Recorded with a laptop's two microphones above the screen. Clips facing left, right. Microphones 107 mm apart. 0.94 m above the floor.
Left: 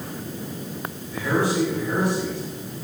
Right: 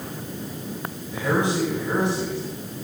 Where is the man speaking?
20° right (ahead or behind), 6.5 m; by 2.4 s 30° right (ahead or behind), 7 m.